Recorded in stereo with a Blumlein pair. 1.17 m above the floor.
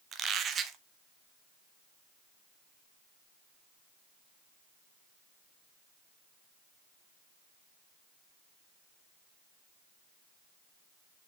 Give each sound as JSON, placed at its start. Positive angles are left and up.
{"t": 0.1, "sound": "a squeak", "azimuth_deg": -25, "distance_m": 0.7}